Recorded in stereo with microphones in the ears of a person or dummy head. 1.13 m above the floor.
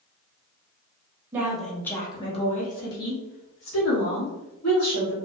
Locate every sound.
1.3 s a woman speaking: 10° right (ahead or behind), 0.8 m; by 5.2 s 75° left (ahead or behind), 1.7 m